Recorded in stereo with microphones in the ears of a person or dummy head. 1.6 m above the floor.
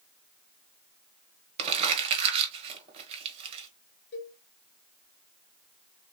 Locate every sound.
1.6 s crumpling: 30° right (ahead or behind), 1.1 m
4.1 s a cowbell: 40° left (ahead or behind), 1.7 m